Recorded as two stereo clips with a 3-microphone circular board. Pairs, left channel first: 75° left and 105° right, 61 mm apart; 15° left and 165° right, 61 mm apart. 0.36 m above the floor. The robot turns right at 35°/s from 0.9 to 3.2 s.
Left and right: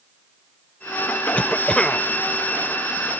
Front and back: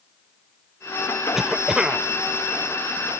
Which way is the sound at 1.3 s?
115° left.